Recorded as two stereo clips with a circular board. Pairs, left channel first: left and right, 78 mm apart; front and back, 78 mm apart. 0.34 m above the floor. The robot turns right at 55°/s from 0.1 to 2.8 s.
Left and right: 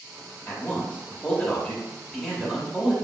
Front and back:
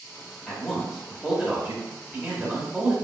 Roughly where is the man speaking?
Left.